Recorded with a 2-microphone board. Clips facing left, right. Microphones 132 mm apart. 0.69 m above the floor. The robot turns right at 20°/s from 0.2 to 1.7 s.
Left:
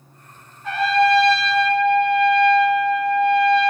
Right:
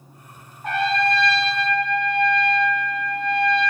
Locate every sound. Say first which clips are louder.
0.6 s a trumpet: left 4 dB; 55° right (ahead or behind), 0.6 m; by 3.7 s 45° right (ahead or behind), 0.6 m